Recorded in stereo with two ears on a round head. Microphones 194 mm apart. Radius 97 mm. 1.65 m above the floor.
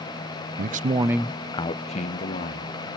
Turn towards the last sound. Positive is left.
turn(degrees=40)  # may be behind; listen again after turning